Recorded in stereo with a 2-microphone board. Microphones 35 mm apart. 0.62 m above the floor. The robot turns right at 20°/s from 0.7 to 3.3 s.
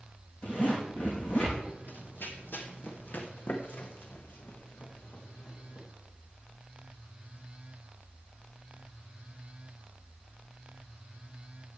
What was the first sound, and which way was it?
A zipper, 45° left (ahead or behind).